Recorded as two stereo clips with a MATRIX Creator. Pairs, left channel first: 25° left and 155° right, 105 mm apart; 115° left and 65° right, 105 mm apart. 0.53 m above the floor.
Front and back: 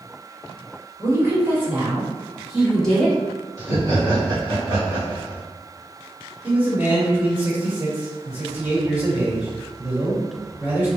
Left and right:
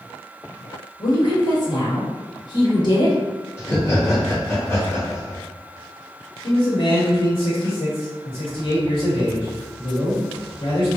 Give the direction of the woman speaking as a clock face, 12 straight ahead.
7 o'clock.